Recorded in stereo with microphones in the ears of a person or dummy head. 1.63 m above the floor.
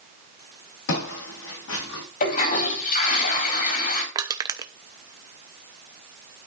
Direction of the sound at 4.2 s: 20° right (ahead or behind).